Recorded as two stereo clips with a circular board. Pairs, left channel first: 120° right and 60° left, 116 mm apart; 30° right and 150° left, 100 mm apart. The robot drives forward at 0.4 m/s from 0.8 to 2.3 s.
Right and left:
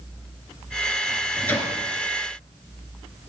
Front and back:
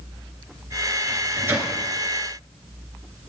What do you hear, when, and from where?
1.1 s a microwave: 170° right, 1.3 m; by 1.7 s 175° right, 1.4 m